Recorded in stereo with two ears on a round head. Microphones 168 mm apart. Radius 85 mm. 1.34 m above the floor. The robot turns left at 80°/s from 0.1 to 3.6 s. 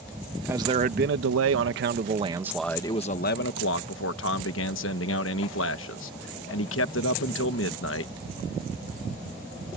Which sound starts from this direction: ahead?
A man speaking, at 0.5 s.